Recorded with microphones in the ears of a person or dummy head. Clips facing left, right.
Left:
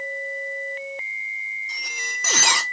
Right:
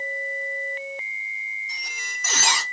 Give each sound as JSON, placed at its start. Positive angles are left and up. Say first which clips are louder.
{"t": 1.7, "sound": "a squeak", "louder": "left 5 dB", "side_deg": 65, "distance_m": 1.2}